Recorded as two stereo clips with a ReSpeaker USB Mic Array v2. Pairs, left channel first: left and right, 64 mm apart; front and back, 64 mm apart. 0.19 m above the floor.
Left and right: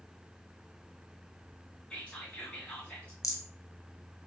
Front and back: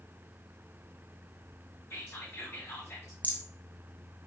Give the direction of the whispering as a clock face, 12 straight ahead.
11 o'clock.